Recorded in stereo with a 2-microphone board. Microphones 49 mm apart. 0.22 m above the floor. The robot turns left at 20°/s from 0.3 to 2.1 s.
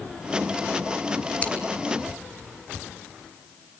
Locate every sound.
1.4 s scissors: 25° left (ahead or behind), 2 m